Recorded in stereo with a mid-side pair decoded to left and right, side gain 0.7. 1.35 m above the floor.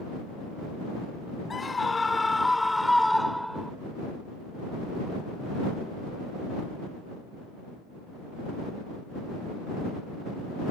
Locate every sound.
1.5 s a scream: 20° left; by 3.7 s 5° right